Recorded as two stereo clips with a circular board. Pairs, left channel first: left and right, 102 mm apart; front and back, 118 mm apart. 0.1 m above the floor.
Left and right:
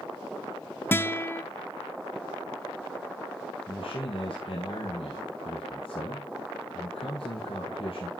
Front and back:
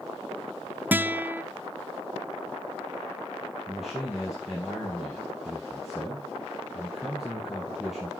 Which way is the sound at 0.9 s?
125° left.